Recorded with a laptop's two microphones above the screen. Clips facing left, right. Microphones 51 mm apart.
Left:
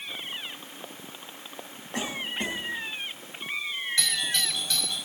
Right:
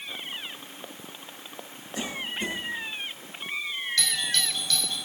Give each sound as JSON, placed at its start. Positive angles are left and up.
{"t": 1.9, "sound": "a cough", "side_deg": 65, "distance_m": 6.5}
{"t": 4.0, "sound": "a doorbell", "side_deg": 20, "distance_m": 7.5}